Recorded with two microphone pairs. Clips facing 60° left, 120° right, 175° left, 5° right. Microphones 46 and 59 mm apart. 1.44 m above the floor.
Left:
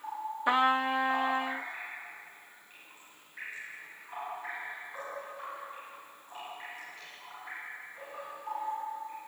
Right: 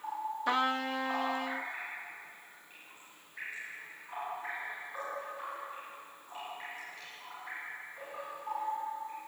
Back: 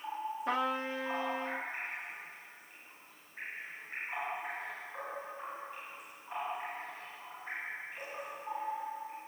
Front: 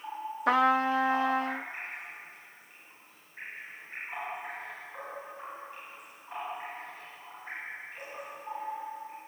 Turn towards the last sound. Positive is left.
turn(degrees=-10)